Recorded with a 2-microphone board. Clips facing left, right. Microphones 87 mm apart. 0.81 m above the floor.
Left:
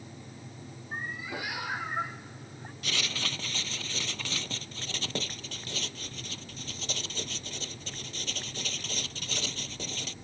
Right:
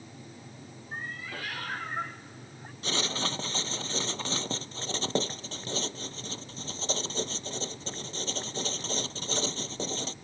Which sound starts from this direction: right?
Writing, at 2.8 s.